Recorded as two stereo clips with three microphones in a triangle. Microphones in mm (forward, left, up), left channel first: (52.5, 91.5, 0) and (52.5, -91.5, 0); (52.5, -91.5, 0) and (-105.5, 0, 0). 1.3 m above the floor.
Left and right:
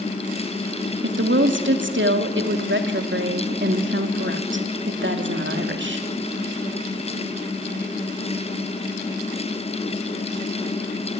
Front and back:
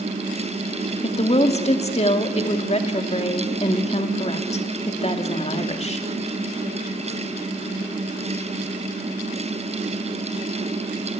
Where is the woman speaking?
85° right, 2 m.